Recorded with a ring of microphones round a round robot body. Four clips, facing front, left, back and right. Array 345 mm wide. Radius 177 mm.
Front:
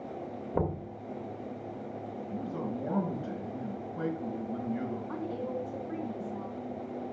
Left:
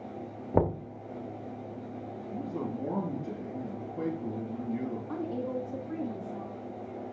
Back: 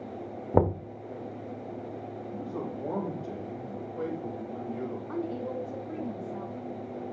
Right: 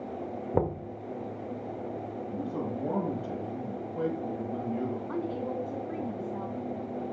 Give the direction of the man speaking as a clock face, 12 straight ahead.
2 o'clock.